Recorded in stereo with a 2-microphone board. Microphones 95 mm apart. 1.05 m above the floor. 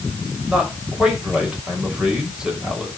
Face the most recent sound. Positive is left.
turn(degrees=-5)  # may be behind; listen again after turning